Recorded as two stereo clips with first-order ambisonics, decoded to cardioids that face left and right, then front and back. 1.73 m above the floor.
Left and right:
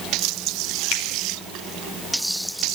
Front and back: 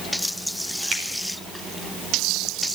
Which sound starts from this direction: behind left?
A finger snap, at 0.9 s.